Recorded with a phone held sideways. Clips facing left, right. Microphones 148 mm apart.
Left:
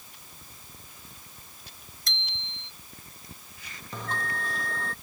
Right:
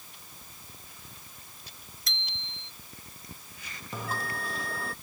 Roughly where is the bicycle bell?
Centre.